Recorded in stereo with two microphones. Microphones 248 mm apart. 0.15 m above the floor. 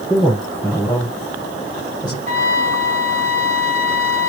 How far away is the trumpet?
About 1.4 m.